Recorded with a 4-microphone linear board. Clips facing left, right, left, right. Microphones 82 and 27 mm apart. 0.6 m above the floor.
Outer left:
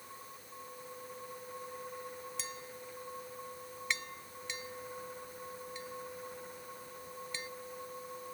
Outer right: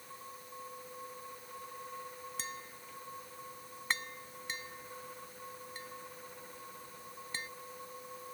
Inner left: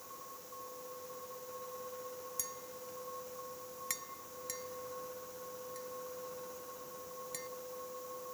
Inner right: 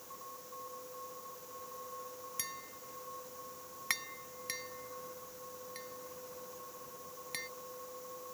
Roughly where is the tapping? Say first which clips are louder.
Even, even; right.